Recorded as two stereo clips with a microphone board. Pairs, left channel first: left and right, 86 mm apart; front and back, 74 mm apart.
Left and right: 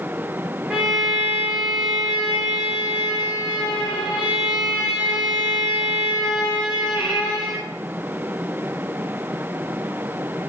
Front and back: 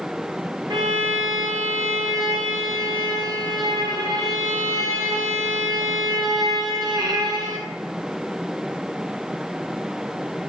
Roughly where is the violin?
Behind.